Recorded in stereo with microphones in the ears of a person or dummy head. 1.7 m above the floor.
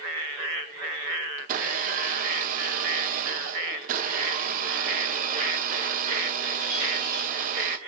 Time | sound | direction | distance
1.4 | a blender | 45° right (ahead or behind) | 1.8 m